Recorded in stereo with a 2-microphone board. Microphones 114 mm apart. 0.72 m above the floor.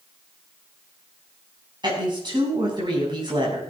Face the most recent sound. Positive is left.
turn(degrees=-40)  # may be behind; listen again after turning